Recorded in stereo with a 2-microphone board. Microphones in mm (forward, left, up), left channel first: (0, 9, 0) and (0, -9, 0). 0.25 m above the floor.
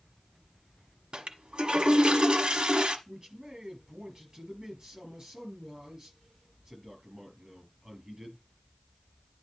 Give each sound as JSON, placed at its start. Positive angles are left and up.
{"t": 1.1, "sound": "a toilet flushing", "side_deg": -55, "distance_m": 1.1}
{"t": 3.1, "sound": "a man speaking", "side_deg": -30, "distance_m": 6.0}